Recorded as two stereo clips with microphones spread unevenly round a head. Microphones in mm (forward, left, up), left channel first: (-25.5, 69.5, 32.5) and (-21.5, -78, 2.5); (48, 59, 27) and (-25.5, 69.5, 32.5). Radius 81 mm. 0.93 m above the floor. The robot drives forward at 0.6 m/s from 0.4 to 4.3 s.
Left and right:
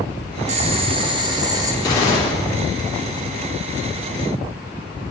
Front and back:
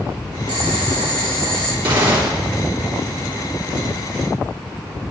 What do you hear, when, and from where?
0.5 s boiling: 135° right, 0.8 m; by 1.7 s 160° right, 1.4 m
1.8 s a gunshot: 160° left, 3.5 m